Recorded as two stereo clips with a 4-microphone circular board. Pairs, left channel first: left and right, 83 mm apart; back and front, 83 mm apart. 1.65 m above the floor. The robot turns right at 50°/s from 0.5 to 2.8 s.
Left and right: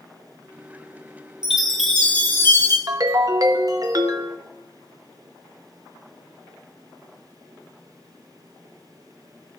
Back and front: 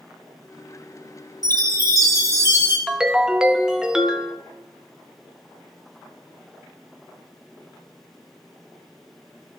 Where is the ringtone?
80° right, 0.7 m.